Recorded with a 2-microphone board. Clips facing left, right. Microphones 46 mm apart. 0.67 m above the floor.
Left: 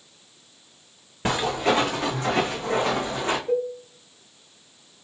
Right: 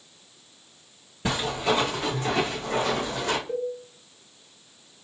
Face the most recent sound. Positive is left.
turn(degrees=80)